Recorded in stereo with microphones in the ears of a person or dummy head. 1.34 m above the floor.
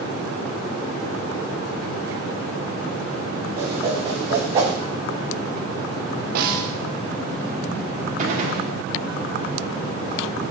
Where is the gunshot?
50° right (ahead or behind), 1.5 m.